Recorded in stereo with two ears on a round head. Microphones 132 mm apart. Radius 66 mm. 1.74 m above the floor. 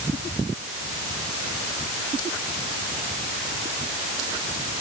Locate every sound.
Only background noise.